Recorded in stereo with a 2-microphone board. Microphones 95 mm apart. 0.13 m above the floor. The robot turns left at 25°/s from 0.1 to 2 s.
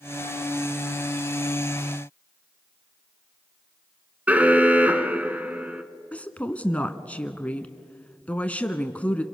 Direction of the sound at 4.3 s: 15° right (ahead or behind).